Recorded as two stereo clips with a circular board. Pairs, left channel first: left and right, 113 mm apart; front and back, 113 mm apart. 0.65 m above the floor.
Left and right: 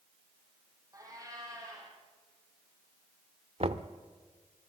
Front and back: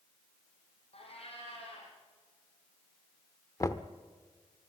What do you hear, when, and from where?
0.9 s a cat meowing: 30° right, 7.5 m
3.6 s knocking: 60° right, 0.9 m